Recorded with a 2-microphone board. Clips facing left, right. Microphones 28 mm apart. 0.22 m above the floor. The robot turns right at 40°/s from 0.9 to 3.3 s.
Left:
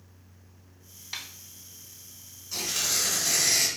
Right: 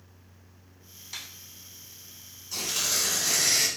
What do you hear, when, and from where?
1.1 s a snare drum: 25° left (ahead or behind), 0.6 m; by 1.3 s 30° left (ahead or behind), 0.6 m
2.5 s tearing paper: 175° left, 1.5 m; by 3.7 s 155° right, 1.5 m